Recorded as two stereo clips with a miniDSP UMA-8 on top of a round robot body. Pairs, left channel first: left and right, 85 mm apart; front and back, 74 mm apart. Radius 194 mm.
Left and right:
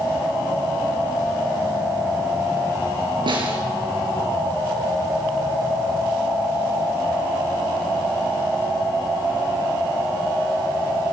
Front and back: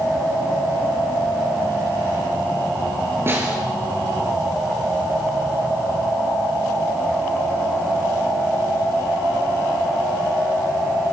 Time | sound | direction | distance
3.3 | a snare drum | 120° right | 6 m